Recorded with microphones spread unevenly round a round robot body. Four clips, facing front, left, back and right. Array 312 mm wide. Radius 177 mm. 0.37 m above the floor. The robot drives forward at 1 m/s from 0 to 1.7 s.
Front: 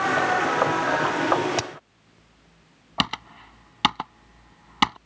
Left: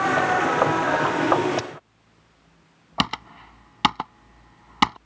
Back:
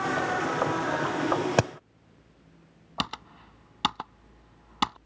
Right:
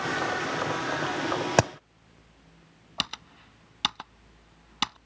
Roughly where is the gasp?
I don't hear a gasp.